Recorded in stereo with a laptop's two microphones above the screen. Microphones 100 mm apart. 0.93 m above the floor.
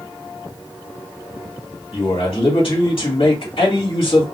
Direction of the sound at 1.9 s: 65° left (ahead or behind).